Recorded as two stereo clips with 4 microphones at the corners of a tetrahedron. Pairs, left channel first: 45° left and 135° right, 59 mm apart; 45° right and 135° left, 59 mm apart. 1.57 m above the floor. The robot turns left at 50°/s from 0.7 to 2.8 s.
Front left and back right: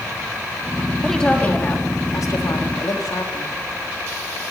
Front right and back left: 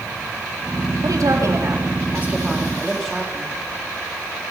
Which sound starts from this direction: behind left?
A woman speaking, at 1.0 s.